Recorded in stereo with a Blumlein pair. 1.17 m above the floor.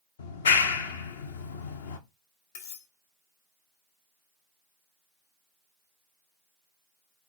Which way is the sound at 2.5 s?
55° left.